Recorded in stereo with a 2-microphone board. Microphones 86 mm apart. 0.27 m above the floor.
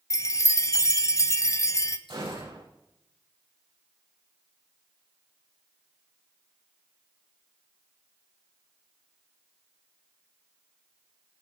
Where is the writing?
I don't hear writing.